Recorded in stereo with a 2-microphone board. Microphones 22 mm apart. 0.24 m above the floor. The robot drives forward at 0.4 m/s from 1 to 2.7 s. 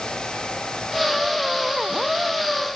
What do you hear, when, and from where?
Only background noise.